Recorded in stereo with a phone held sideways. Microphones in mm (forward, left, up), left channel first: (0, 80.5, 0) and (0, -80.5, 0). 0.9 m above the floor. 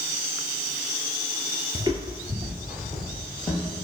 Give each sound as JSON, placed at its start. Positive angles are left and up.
{"t": 1.8, "sound": "footsteps", "side_deg": -25, "distance_m": 0.9}